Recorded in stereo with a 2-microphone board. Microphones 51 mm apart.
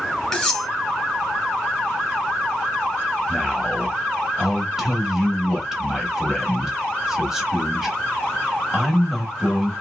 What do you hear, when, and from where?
0.3 s cutlery clinking: 5° left (ahead or behind), 2.5 m
3.3 s a man speaking: 10° right (ahead or behind), 1.3 m